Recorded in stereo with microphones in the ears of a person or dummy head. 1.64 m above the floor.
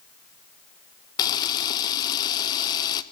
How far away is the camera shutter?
About 1.5 m.